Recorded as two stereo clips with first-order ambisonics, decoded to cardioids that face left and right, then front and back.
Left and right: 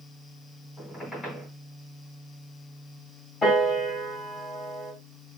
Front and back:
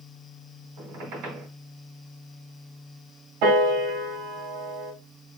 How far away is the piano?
About 3 m.